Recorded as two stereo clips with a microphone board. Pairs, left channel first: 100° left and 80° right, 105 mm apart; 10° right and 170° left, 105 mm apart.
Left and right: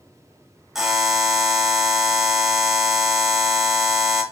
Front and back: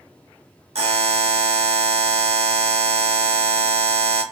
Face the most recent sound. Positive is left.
turn(degrees=-165)